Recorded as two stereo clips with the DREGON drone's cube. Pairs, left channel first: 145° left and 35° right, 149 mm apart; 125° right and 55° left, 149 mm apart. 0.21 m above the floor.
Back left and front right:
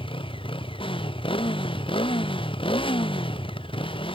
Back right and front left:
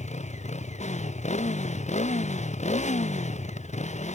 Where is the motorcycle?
160° right.